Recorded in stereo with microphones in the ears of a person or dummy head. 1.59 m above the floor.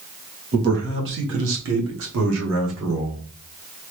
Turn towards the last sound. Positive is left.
turn(degrees=-60)  # may be behind; listen again after turning